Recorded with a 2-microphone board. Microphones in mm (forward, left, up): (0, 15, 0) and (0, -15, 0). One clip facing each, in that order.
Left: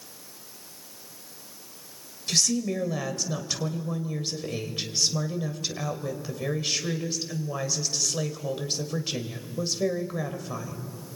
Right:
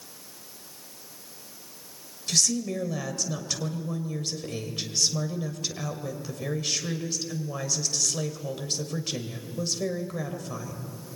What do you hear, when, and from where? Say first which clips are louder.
2.3 s a woman speaking: left 1 dB; 15° left (ahead or behind), 1.9 m